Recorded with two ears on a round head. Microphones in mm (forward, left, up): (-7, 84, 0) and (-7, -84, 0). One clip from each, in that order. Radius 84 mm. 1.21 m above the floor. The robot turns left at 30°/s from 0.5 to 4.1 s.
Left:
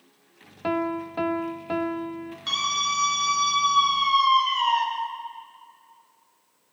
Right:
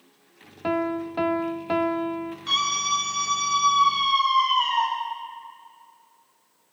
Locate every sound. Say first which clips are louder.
0.6 s a piano: right 1 dB; 10° left, 0.6 m; by 2.4 s 40° right, 0.6 m
2.5 s a scream: right 1 dB; 150° left, 8 m; by 4.8 s 100° left, 8 m